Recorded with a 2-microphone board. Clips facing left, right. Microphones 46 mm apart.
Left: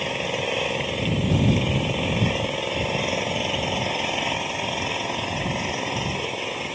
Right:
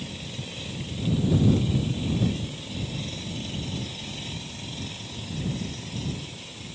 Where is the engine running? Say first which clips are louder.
Left 12 dB; 60° left (ahead or behind).